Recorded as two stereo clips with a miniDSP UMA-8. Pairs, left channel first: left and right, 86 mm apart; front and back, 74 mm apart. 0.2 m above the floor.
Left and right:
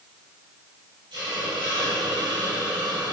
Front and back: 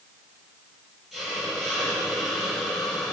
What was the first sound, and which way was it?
A hiss, 90° right.